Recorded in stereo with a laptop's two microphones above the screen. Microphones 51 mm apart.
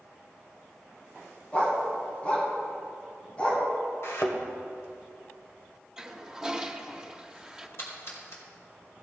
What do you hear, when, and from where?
1.5 s a dog barking: 25° left (ahead or behind), 2 m
4.0 s a thud: 65° left (ahead or behind), 1.4 m
6.0 s a toilet flushing: 10° right (ahead or behind), 1.1 m
7.8 s a splash: 60° left (ahead or behind), 4.5 m